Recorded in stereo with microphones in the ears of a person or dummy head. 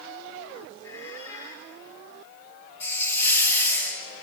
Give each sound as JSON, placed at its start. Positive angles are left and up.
{"t": 0.8, "sound": "a squeak", "side_deg": 20, "distance_m": 3.0}
{"t": 2.8, "sound": "a hiss", "side_deg": 15, "distance_m": 2.5}